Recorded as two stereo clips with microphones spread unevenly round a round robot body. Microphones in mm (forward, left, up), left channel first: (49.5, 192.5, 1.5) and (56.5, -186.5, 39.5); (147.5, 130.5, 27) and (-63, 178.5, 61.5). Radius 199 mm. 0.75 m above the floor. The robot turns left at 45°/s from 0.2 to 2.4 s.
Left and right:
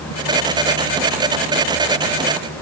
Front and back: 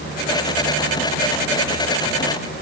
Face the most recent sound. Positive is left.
No sound to turn to.